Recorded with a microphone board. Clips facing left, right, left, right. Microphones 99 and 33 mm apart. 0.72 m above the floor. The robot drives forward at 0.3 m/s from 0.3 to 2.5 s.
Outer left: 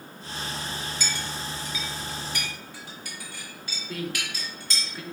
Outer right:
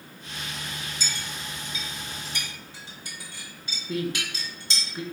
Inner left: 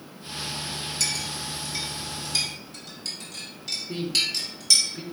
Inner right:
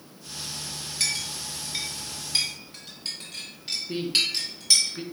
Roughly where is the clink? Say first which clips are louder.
Outer left 3 dB, inner right 2 dB; right.